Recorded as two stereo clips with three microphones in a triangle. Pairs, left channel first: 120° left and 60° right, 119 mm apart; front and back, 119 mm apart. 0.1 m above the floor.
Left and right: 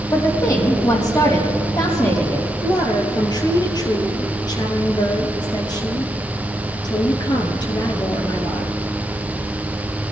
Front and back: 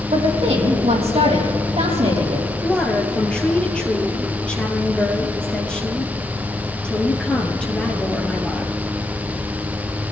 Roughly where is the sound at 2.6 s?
Left.